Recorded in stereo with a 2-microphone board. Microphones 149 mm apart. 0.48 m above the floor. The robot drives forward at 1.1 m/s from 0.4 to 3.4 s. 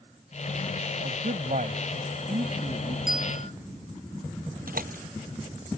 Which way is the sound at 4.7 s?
75° right (ahead or behind).